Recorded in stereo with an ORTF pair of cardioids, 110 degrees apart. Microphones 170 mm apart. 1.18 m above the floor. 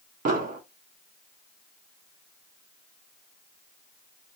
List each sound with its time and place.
0.2 s an explosion: 50° right, 1.1 m